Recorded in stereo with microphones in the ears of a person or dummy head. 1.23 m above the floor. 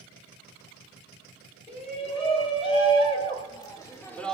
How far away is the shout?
About 4 m.